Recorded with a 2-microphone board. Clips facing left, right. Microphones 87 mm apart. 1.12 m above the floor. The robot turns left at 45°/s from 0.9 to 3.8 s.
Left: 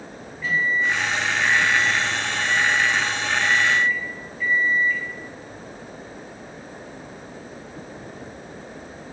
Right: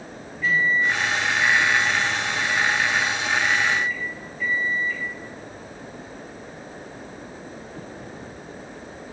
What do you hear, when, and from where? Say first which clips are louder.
0.4 s a microwave: right 1 dB; 175° left, 1.8 m; by 5.0 s 45° left, 1.8 m